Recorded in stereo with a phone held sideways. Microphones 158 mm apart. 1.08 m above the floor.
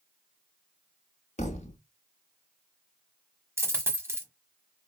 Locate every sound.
1.4 s a thud: 45° left (ahead or behind), 0.9 m
3.6 s a dropped coin: 15° right (ahead or behind), 1.1 m